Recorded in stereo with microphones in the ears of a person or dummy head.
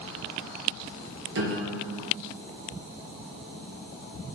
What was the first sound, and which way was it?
A piano, 60° right (ahead or behind).